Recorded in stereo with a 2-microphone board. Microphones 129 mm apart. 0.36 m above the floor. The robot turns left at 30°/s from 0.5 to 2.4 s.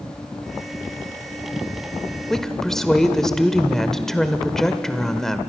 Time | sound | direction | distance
2.3 | a woman speaking | 5° left (ahead or behind) | 1.1 m